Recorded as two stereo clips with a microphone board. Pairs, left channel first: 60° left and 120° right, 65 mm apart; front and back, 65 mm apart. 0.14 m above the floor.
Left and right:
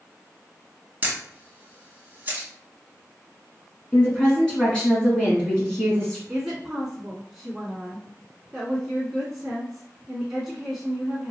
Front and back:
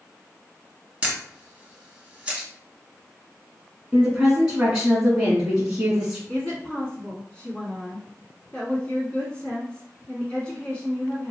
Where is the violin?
No violin in this recording.